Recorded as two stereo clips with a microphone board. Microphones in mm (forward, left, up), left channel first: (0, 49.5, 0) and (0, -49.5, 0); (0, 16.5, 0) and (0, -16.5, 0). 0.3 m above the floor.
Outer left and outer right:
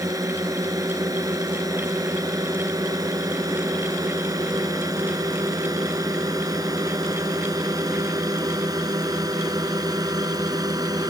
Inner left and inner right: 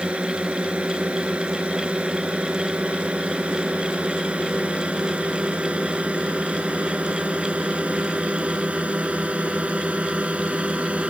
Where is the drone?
35° right (ahead or behind); by 11.1 s 40° right (ahead or behind).